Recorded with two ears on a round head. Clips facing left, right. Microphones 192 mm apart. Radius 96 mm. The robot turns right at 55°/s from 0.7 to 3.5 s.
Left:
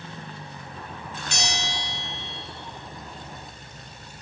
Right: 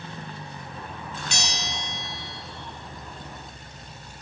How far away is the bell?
About 5 m.